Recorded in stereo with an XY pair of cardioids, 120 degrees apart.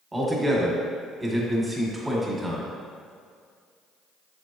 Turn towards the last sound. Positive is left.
turn(degrees=-15)